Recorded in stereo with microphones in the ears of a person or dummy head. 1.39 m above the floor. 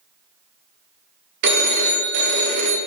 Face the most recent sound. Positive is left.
turn(degrees=-60)  # may be behind; listen again after turning